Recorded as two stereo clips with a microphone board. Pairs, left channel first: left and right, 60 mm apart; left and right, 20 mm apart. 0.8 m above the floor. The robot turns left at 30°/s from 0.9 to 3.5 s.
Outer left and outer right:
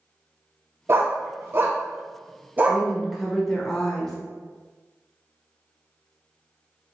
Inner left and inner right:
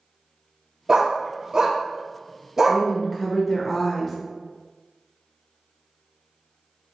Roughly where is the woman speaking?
Centre.